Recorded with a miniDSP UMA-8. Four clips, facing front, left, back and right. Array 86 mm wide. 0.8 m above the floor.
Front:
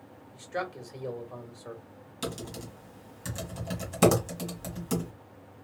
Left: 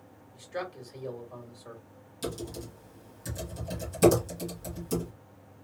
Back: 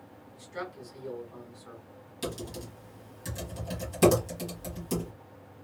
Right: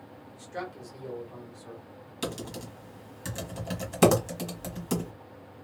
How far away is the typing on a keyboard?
About 1.5 m.